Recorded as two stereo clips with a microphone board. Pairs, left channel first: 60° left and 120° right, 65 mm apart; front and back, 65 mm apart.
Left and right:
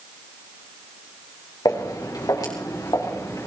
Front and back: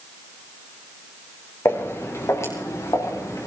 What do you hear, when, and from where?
1.6 s footsteps: 45° left, 5 m; by 3.5 s 35° left, 6.5 m